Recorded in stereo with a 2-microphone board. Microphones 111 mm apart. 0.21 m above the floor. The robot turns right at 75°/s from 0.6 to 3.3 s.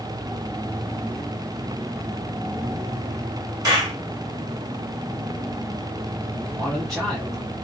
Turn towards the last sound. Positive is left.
turn(degrees=0)  # may be behind; listen again after turning